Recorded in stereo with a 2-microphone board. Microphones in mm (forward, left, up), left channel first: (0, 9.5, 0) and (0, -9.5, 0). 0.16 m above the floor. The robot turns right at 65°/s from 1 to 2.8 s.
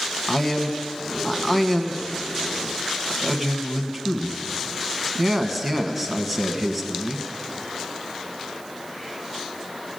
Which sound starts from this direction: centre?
A man speaking, at 0.3 s.